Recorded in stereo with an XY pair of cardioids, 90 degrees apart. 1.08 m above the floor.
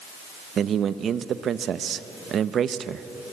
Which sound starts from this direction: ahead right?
A man speaking, at 0.6 s.